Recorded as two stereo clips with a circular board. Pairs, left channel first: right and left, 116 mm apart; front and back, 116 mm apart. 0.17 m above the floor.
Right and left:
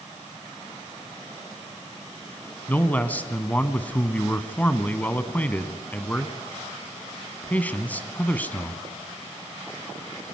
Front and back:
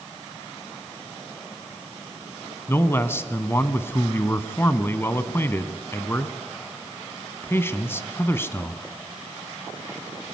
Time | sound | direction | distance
2.7 | a man speaking | 35° right | 1.2 m